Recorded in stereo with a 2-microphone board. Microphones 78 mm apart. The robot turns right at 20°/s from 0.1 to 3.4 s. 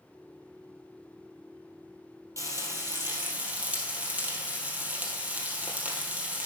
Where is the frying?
40° right (ahead or behind), 2.5 m; by 6.5 s 20° right (ahead or behind), 2.5 m.